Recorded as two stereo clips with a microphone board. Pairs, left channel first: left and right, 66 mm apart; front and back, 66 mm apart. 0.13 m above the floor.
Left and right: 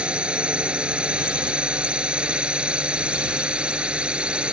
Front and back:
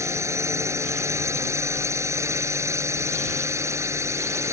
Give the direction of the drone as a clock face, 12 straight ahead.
5 o'clock.